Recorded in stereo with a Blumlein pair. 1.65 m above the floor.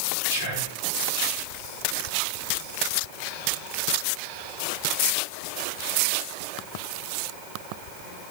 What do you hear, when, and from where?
0.3 s whispering: 60° right, 3.5 m